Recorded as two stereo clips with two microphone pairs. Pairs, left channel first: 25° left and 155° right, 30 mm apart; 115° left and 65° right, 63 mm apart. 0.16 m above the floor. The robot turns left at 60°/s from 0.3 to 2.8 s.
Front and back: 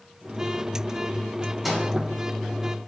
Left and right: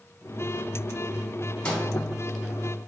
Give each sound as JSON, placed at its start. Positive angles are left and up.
{"t": 1.6, "sound": "a microwave", "azimuth_deg": 145, "distance_m": 1.1}